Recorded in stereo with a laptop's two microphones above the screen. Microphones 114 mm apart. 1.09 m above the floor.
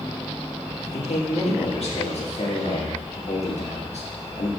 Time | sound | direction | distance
0.8 | a man speaking | 65° left (ahead or behind) | 2.0 m